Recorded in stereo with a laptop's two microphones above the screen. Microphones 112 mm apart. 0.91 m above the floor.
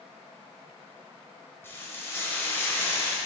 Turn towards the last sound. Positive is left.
turn(degrees=20)  # may be behind; listen again after turning